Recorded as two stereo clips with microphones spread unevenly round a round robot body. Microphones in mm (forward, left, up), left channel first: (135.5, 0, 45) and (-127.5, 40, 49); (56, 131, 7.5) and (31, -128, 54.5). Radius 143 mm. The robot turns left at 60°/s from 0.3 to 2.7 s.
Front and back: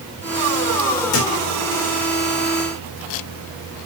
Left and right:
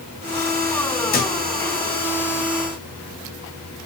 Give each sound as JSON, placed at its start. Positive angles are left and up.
{"t": 1.1, "sound": "a thud", "azimuth_deg": 30, "distance_m": 2.0}